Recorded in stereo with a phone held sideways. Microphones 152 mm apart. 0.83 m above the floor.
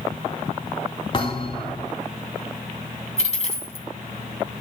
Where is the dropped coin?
45° left (ahead or behind), 2.5 m.